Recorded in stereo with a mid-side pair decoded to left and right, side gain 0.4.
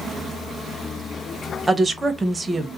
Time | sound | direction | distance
1.7 | a woman speaking | 25° right | 0.8 m